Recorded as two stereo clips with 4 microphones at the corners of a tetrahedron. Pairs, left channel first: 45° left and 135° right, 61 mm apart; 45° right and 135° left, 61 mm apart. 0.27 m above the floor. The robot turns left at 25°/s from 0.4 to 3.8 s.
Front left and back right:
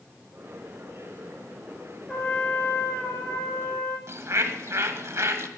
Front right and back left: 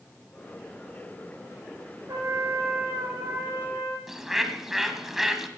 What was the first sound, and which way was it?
A trumpet, 125° left.